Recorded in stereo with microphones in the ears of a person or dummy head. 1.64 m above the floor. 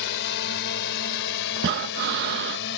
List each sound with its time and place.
0.0 s a drone: 65° left (ahead or behind)
1.6 s breathing: 60° right (ahead or behind)